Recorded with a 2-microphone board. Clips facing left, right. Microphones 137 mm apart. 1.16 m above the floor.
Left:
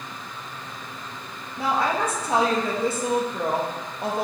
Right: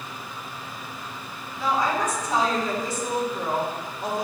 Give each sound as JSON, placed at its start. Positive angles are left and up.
{"t": 1.6, "sound": "a woman speaking", "side_deg": 65, "distance_m": 1.6}